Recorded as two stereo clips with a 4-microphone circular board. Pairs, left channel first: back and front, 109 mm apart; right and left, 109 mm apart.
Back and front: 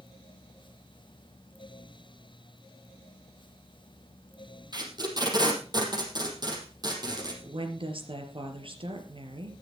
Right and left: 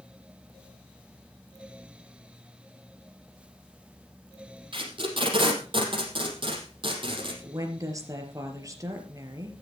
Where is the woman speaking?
30° left, 4 m.